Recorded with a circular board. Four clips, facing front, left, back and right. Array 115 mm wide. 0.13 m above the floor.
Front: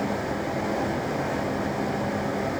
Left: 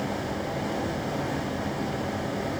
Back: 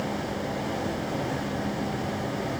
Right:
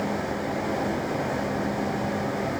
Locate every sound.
Only background noise.